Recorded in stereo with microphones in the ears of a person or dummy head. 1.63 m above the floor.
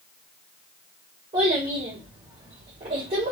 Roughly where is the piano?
No piano in this recording.